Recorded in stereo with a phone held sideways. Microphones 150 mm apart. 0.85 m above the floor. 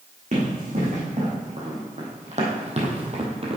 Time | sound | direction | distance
0.3 | running footsteps | 50° right (ahead or behind) | 3 m